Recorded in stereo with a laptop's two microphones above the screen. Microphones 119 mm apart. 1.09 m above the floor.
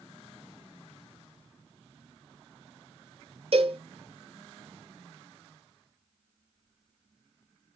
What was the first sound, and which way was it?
A cowbell, 55° right (ahead or behind).